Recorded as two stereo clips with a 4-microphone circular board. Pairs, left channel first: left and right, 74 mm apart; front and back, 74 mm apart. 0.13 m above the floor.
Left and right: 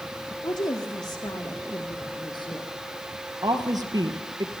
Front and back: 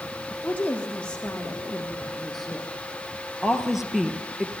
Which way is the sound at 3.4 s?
95° right.